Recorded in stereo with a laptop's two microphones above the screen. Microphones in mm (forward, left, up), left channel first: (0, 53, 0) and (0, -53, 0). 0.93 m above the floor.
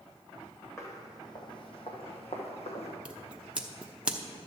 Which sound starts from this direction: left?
Footsteps, at 0.8 s.